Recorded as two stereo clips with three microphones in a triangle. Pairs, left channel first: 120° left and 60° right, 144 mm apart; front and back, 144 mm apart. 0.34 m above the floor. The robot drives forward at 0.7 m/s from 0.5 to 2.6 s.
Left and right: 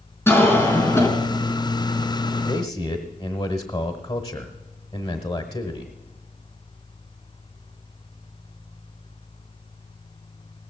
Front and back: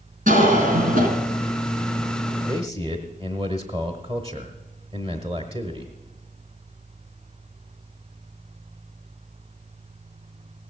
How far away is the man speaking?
About 1.1 m.